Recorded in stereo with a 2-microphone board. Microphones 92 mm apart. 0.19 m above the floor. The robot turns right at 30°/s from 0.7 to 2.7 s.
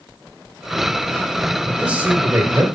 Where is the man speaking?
5° right (ahead or behind), 3.5 m; by 2.6 s 35° right (ahead or behind), 3.5 m.